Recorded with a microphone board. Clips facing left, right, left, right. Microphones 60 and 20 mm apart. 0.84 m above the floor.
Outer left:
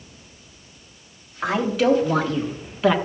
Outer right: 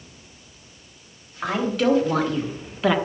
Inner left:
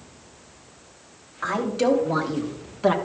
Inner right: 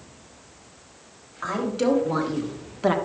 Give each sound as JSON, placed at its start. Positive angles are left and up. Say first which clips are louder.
{"t": 1.4, "sound": "a woman speaking", "louder": "outer left 2 dB, inner left 1 dB", "side_deg": 0, "distance_m": 3.0}